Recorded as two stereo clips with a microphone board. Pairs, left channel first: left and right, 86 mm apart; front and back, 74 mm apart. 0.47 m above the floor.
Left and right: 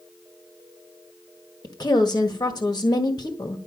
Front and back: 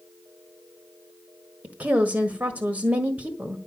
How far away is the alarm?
I don't hear an alarm.